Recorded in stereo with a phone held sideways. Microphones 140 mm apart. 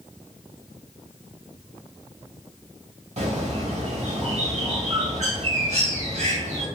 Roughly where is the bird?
Right.